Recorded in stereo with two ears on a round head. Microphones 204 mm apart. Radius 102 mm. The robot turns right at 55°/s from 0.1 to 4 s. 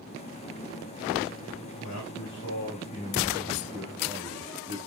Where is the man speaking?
85° left, 5 m; by 4.8 s 155° right, 5 m.